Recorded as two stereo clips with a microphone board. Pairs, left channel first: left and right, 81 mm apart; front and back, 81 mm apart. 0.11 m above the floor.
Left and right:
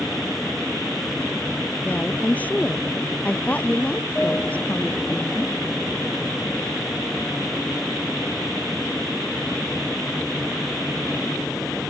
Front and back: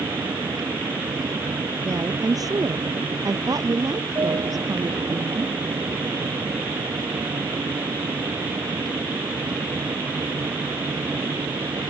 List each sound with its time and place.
0.0 s an aircraft: 160° left
1.8 s a woman speaking: 155° left